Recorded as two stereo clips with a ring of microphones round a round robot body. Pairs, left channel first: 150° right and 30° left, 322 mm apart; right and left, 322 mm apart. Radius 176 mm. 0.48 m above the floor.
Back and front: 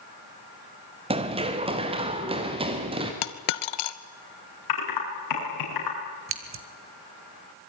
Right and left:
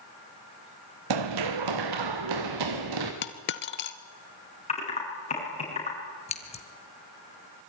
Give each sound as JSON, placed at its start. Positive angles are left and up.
{"t": 1.1, "sound": "running footsteps", "azimuth_deg": 105, "distance_m": 1.9}
{"t": 3.2, "sound": "a dropped coin", "azimuth_deg": -145, "distance_m": 1.1}
{"t": 4.7, "sound": "typing on a keyboard", "azimuth_deg": -160, "distance_m": 7.5}
{"t": 6.3, "sound": "scissors", "azimuth_deg": -20, "distance_m": 2.0}